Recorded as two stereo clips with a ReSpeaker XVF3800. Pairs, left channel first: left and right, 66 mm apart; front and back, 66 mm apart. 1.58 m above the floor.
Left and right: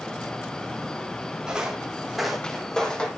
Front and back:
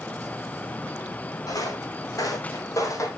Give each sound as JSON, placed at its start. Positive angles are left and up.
{"t": 1.5, "sound": "footsteps", "azimuth_deg": -10, "distance_m": 4.0}